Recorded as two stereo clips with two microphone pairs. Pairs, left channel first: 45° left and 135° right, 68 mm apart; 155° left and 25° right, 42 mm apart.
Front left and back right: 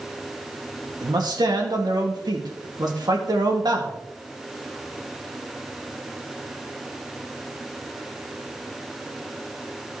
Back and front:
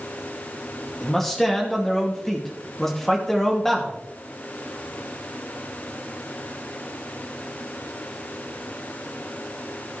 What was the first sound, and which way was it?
A man speaking, 120° right.